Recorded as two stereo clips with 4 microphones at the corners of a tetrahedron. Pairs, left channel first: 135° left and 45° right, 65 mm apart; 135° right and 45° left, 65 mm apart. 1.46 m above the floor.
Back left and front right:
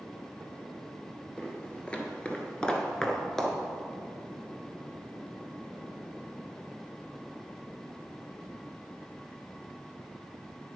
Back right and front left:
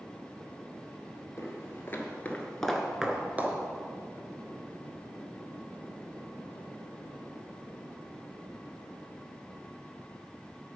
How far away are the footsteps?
About 2 m.